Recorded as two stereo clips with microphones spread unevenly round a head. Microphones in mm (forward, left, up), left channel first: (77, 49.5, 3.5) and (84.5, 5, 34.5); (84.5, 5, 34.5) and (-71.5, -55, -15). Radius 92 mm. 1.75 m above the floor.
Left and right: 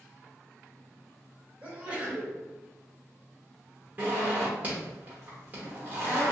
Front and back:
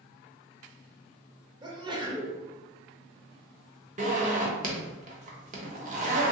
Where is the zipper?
110° right, 0.7 m.